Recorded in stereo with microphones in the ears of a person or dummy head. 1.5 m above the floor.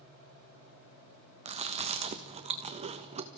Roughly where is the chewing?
Right.